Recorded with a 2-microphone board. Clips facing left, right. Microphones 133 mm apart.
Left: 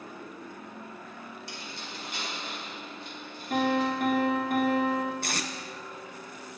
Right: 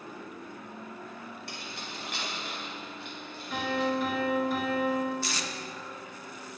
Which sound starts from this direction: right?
Keys jangling, at 1.5 s.